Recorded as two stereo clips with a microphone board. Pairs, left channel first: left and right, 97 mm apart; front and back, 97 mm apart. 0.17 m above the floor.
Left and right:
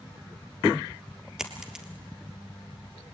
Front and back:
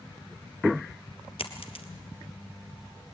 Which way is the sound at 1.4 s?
5° right.